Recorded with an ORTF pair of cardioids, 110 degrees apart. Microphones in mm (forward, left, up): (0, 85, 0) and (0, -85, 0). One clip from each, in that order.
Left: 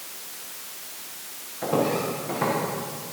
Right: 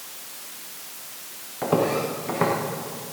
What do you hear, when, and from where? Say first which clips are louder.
1.6 s footsteps: right 2 dB; 65° right, 5 m